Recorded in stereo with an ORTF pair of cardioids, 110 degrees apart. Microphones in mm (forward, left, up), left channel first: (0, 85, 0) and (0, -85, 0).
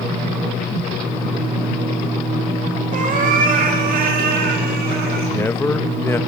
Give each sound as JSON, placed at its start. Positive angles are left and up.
{"t": 2.9, "sound": "a cat meowing", "azimuth_deg": -50, "distance_m": 4.5}
{"t": 5.3, "sound": "a man speaking", "azimuth_deg": 15, "distance_m": 2.5}